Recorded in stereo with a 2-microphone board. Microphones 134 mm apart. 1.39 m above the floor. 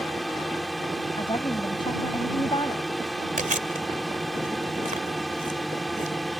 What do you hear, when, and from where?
0.0 s a drone: centre (ahead or behind)
1.2 s a woman speaking: 35° left (ahead or behind)
3.4 s chewing: 75° right (ahead or behind)